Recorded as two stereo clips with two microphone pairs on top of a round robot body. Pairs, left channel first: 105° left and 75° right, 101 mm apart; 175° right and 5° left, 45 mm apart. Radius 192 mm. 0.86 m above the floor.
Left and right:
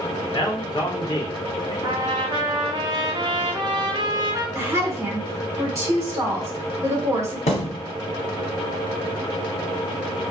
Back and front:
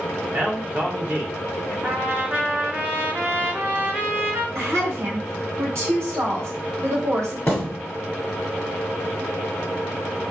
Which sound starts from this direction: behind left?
A thud, at 7.5 s.